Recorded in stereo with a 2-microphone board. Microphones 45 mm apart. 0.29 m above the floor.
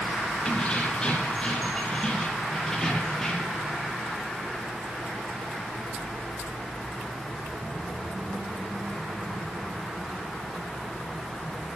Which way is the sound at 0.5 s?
20° left (ahead or behind).